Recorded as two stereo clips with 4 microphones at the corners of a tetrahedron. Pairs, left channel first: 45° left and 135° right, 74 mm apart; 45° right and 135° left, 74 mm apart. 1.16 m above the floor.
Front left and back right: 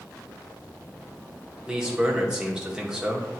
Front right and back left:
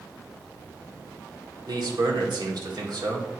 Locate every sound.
1.7 s a man speaking: 145° left, 1.7 m